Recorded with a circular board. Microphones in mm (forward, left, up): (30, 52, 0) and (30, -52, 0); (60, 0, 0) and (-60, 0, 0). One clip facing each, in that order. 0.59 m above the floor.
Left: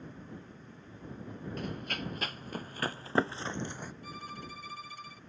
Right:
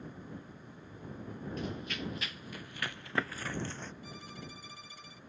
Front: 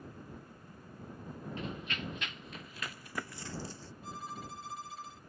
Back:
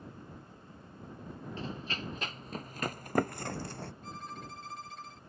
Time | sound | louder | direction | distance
1.6 | running footsteps | left 1 dB, back 1 dB | 125° left | ?
4.0 | a violin | left 3 dB, even | 80° left | ?